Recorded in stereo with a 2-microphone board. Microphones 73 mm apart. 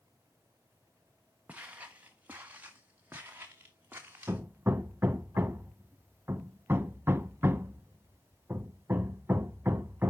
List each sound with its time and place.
1.5 s footsteps: 20° right (ahead or behind), 1.7 m; by 4.4 s 25° right (ahead or behind), 3.5 m
4.3 s hammering: 30° right (ahead or behind), 0.7 m